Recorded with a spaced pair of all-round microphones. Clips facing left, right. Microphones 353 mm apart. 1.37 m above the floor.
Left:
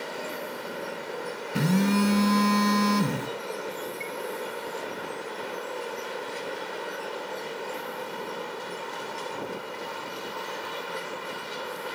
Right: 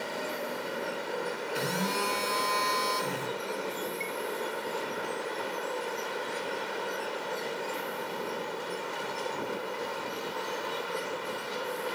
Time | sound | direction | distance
1.6 | a phone buzzing | 70° left (ahead or behind) | 3.5 m
4.0 | a chime | 40° right (ahead or behind) | 1.5 m